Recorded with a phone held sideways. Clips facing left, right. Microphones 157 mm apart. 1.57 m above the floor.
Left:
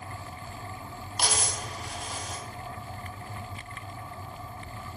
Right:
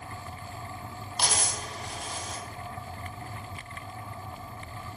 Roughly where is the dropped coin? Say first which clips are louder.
Even; centre.